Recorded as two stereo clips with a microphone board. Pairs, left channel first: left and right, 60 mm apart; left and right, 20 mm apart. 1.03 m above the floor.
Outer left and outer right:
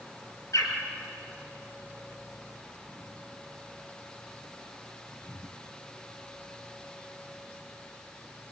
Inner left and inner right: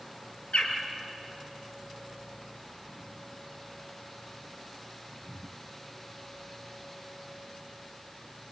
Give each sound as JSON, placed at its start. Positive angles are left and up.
{"t": 0.5, "sound": "a bird", "side_deg": 65, "distance_m": 4.0}